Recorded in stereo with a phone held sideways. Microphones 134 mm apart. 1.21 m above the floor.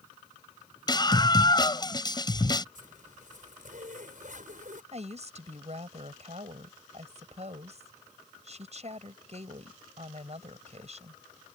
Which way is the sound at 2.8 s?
65° right (ahead or behind).